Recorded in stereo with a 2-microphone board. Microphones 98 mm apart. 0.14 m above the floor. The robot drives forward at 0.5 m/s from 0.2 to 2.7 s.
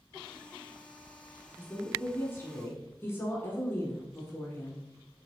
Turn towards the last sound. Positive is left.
turn(degrees=20)  # may be behind; listen again after turning